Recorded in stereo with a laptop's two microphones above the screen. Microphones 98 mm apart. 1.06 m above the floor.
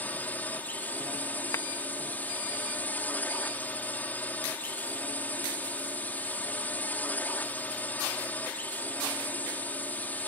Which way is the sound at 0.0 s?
20° left (ahead or behind).